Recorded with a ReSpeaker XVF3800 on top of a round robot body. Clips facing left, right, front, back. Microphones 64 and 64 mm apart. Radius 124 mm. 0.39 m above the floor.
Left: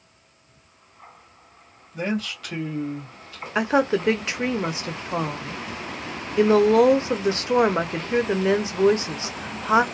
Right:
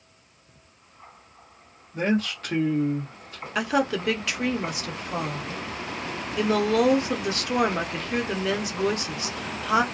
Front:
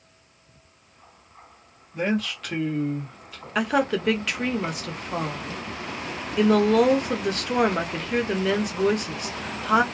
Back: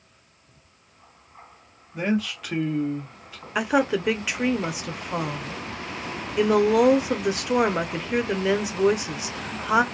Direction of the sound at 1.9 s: 100° right.